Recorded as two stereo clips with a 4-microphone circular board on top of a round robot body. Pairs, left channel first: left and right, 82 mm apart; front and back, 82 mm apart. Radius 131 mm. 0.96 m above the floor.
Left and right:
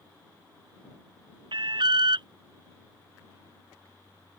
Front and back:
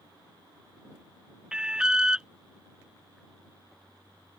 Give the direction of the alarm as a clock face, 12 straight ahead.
3 o'clock.